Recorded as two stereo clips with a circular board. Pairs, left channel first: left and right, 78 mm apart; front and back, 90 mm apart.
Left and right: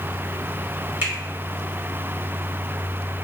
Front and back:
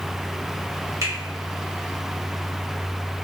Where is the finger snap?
145° right, 1.4 m.